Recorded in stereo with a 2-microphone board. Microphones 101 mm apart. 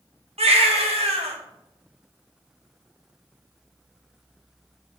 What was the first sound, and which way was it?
A baby crying, 85° right.